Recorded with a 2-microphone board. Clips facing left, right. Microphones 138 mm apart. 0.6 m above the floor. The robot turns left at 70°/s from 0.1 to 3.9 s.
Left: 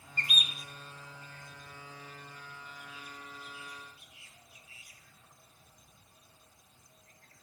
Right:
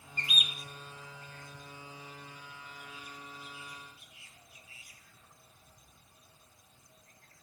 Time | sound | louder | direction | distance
0.2 | a bird | left 1 dB | 50° left (ahead or behind) | 1.2 m